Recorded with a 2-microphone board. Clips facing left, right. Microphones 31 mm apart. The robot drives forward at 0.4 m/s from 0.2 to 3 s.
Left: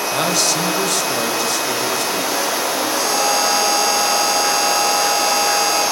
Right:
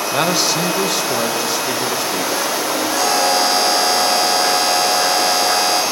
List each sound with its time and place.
0.1 s a man speaking: 15° right (ahead or behind), 1.3 m; by 2.9 s 10° right (ahead or behind), 2.5 m
3.0 s a buzzer: 80° right, 6 m